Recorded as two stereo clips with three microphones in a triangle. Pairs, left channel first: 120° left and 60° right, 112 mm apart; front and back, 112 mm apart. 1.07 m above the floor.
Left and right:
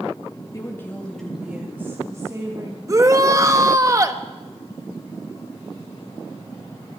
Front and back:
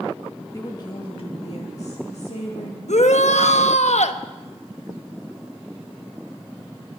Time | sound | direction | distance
0.5 | a woman speaking | 60° left | 2.0 m
2.9 | a shout | straight ahead | 1.2 m